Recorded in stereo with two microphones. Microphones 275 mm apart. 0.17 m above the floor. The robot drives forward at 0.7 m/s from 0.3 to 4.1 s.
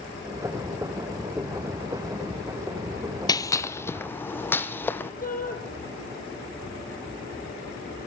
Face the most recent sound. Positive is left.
turn(degrees=30)  # may be behind; listen again after turning